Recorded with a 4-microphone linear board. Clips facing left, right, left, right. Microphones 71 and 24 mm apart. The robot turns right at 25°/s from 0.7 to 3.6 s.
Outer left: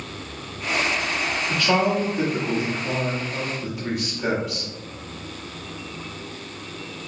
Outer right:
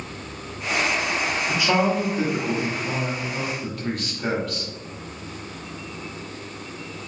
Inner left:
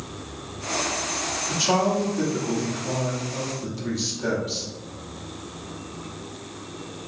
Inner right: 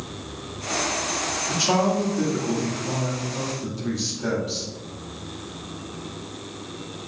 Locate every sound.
1.5 s a man speaking: 15° right (ahead or behind), 1.1 m; by 4.7 s 10° left (ahead or behind), 1.1 m